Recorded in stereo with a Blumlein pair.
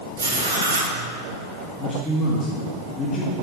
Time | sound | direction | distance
0.2 | writing | 70° right | 1.7 m
1.8 | a man speaking | 15° left | 1.6 m